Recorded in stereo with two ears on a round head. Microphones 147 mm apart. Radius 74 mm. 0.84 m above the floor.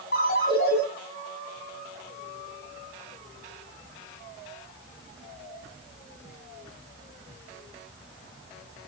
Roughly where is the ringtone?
Left.